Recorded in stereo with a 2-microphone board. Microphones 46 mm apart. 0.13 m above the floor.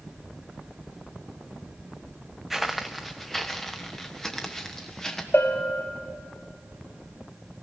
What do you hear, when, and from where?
2.5 s footsteps: 5° right (ahead or behind), 0.7 m; by 5.2 s 10° left (ahead or behind), 2 m
5.3 s a bell: 60° left (ahead or behind), 1.3 m